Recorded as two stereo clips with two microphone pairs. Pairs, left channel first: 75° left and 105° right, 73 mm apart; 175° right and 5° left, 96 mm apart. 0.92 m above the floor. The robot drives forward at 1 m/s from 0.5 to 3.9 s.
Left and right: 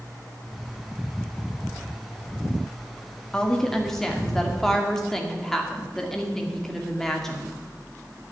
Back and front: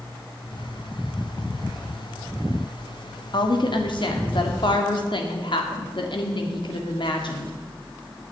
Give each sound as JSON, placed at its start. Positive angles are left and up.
{"t": 3.3, "sound": "a woman speaking", "azimuth_deg": 155, "distance_m": 1.6}